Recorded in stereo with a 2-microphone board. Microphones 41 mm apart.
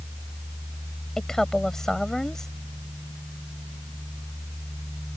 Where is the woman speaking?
10° left (ahead or behind).